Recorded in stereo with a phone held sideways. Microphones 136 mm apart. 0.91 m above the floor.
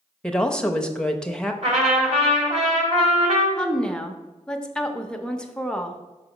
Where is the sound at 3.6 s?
5° left (ahead or behind), 0.6 m.